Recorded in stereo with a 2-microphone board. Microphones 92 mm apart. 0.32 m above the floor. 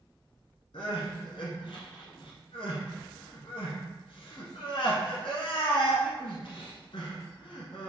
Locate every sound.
0.7 s crying: 85° left, 0.9 m